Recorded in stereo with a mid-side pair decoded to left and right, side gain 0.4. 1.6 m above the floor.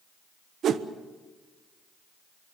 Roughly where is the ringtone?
I don't hear a ringtone.